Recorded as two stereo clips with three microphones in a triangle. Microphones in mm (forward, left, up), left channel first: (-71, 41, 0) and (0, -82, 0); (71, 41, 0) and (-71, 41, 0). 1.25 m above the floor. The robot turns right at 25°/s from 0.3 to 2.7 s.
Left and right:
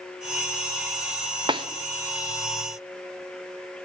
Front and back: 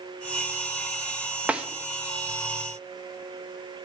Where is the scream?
No scream in this recording.